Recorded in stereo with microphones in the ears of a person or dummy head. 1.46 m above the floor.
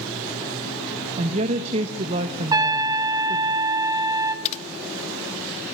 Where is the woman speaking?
40° right (ahead or behind), 1.4 m.